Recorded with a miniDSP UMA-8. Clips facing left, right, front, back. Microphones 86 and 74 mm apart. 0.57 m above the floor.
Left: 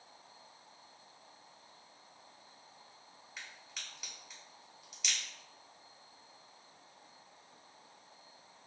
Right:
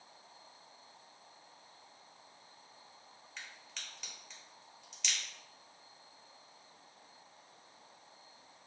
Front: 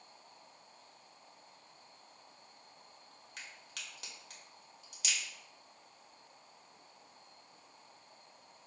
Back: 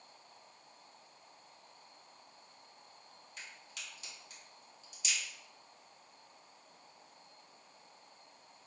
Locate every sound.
3.4 s a crack: 5° left, 1.1 m